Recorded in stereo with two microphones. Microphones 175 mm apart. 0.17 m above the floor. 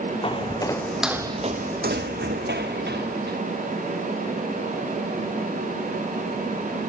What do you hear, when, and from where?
0.2 s footsteps: 30° left (ahead or behind), 0.9 m; by 3.4 s 80° right, 1.5 m